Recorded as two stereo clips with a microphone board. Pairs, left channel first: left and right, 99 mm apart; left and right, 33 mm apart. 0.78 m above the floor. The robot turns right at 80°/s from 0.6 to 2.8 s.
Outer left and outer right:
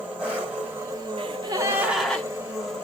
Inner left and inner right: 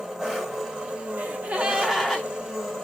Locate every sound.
0.0 s an engine running: 165° right, 1.5 m; by 2.9 s 10° left, 1.5 m
1.2 s a gasp: 65° right, 0.6 m; by 2.3 s 20° left, 0.6 m